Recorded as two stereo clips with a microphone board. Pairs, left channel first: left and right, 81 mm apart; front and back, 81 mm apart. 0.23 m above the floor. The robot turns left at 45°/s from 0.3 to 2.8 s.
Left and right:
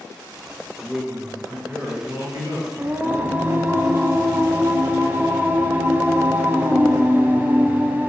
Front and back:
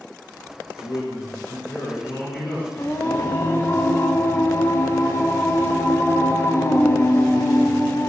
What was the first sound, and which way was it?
A man speaking, 20° left.